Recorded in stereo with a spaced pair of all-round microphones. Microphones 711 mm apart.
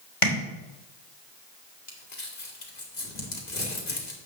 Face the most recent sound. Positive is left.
turn(degrees=75)  # may be behind; listen again after turning